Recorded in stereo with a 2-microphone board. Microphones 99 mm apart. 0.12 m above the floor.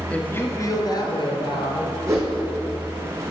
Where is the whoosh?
30° right (ahead or behind), 2.5 m.